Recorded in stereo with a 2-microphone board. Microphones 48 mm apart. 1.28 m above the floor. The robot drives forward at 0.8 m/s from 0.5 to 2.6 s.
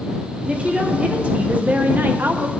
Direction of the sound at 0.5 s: 25° right (ahead or behind).